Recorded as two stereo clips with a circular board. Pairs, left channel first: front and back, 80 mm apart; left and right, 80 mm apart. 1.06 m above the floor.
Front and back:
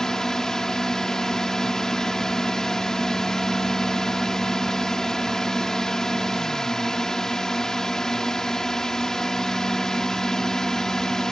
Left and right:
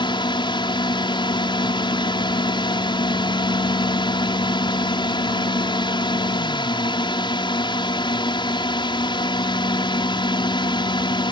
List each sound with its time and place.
0.0 s a drone: 85° left